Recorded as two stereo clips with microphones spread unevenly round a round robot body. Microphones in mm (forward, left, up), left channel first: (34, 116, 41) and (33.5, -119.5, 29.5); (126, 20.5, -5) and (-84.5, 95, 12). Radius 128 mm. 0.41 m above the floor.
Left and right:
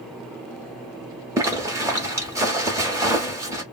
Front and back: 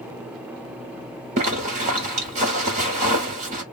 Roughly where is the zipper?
Behind right.